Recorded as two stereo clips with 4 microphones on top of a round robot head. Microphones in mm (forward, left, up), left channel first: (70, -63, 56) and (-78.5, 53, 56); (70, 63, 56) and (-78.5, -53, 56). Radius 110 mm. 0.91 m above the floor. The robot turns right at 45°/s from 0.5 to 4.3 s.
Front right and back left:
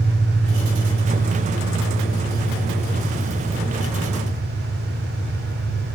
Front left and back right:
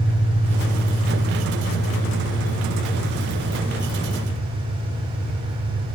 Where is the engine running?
65° left, 6 m; by 6.0 s 125° right, 6 m.